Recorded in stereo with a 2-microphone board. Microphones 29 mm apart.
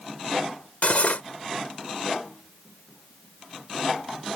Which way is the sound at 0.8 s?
60° left (ahead or behind).